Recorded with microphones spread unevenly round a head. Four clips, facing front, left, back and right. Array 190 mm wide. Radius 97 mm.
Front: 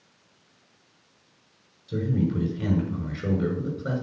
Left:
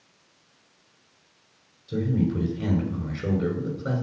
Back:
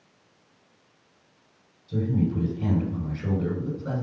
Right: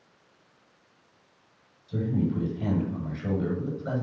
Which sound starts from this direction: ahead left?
A man speaking, at 1.9 s.